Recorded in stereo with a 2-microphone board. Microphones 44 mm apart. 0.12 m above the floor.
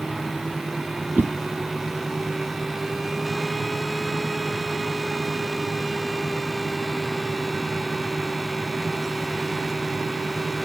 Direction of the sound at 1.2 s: 40° right (ahead or behind).